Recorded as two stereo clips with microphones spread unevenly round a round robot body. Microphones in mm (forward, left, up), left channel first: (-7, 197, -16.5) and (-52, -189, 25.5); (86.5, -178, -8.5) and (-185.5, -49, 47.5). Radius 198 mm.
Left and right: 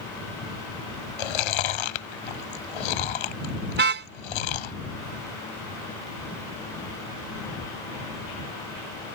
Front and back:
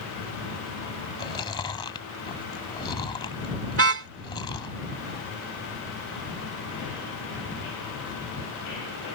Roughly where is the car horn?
Behind.